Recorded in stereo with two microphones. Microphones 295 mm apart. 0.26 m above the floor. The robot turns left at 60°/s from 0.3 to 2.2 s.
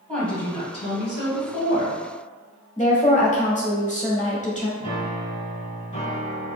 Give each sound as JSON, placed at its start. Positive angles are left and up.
{"t": 0.1, "sound": "a woman speaking", "azimuth_deg": 175, "distance_m": 1.4}
{"t": 2.8, "sound": "a woman speaking", "side_deg": 25, "distance_m": 0.9}
{"t": 4.8, "sound": "a piano", "side_deg": 25, "distance_m": 1.3}